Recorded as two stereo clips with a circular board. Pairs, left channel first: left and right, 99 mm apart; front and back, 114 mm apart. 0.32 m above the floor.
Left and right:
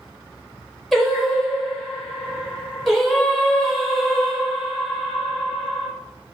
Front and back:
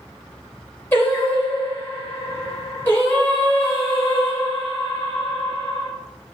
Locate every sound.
0.9 s singing: straight ahead, 1.0 m